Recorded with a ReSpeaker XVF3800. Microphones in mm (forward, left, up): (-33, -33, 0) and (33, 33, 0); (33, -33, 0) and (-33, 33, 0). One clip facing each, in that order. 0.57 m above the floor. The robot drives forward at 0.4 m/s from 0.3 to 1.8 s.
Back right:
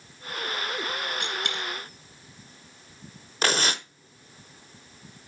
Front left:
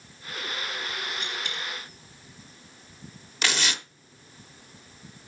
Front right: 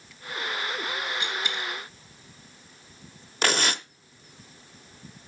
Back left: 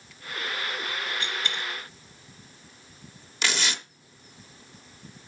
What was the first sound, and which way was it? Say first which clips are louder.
A dropped coin: back right 3 dB, front right 1 dB; 120° right.